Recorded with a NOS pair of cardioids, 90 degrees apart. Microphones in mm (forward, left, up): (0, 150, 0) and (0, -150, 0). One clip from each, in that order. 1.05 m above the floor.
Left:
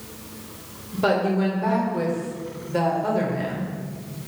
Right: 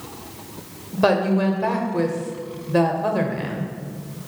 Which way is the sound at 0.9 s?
25° right.